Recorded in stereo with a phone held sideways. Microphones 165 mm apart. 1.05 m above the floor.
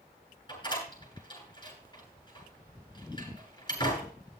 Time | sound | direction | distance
0.5 | a door slam | 25° left (ahead or behind) | 9.5 m